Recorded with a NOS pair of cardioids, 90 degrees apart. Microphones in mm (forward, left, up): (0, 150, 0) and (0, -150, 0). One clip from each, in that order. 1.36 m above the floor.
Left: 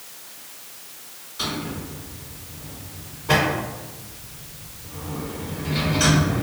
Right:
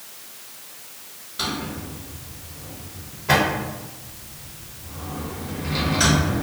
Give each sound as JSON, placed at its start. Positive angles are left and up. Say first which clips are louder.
{"t": 1.4, "sound": "a drawer", "louder": "right 1 dB", "azimuth_deg": -40, "distance_m": 1.4}